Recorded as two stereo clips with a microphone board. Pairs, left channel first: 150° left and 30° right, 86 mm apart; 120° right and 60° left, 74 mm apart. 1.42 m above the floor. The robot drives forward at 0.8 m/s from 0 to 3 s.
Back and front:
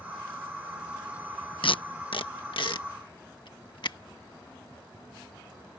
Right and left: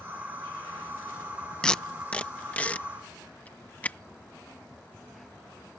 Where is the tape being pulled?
160° left; by 4.0 s 170° left.